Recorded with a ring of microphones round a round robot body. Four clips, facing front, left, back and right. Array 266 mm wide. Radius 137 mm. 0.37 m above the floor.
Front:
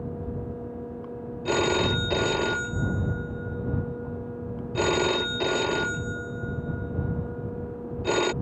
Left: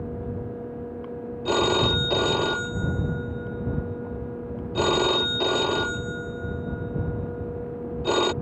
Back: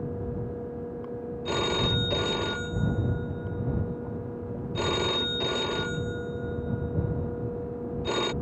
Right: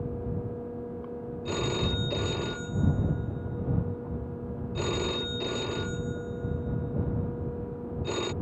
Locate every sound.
1.4 s a phone ringing: 60° left